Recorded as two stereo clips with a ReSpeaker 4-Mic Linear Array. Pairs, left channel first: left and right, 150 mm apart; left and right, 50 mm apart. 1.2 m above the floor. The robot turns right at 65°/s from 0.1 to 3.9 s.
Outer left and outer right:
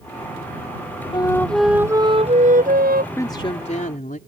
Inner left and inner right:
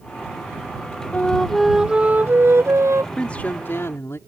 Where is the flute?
150° left; by 3.1 s 85° right.